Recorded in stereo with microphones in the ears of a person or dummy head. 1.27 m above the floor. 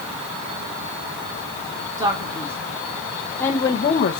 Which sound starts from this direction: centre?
A man speaking, at 2.0 s.